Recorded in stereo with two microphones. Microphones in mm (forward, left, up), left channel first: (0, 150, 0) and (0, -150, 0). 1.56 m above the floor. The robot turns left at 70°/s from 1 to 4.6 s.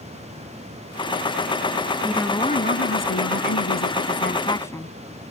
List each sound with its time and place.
2.0 s a woman speaking: 170° right; by 5.0 s 10° left